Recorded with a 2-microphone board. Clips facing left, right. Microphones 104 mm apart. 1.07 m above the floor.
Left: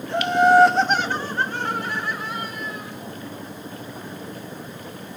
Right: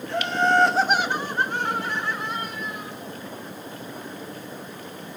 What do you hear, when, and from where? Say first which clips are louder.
0.1 s laughter: left 6 dB; 20° left (ahead or behind), 1.0 m; by 2.9 s 20° right (ahead or behind), 3.5 m